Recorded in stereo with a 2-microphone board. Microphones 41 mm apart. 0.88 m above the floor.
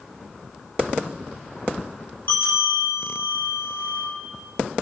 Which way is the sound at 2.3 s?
70° left (ahead or behind).